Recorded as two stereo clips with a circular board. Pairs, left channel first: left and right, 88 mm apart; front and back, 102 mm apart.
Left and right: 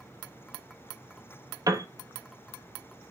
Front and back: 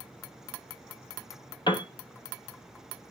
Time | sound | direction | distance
1.7 | a piano | 40° right | 1.1 m